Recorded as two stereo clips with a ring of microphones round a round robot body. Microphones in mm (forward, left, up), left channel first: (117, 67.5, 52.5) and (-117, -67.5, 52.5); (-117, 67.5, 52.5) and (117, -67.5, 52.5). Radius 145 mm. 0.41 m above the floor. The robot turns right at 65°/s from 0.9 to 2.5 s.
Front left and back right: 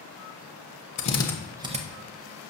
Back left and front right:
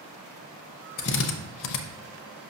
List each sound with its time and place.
1.0 s a drill: 90° left, 0.6 m; by 1.8 s 145° left, 0.6 m